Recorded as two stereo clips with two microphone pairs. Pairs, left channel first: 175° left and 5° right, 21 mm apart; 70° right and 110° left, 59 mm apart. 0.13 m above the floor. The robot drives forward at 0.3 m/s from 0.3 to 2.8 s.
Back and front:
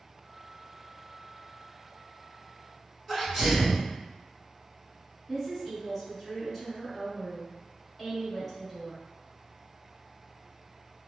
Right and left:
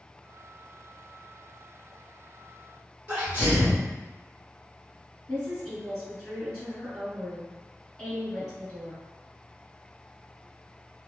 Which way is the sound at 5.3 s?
135° right.